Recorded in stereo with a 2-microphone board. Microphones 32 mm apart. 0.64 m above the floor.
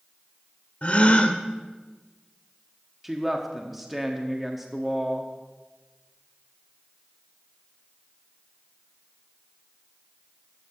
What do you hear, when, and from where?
0.8 s a gasp: 40° left (ahead or behind), 0.8 m
3.0 s a woman speaking: 10° right (ahead or behind), 0.9 m